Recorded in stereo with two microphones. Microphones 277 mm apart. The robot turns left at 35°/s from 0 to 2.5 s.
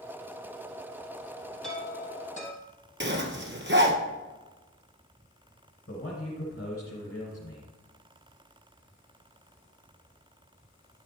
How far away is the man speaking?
About 2.5 m.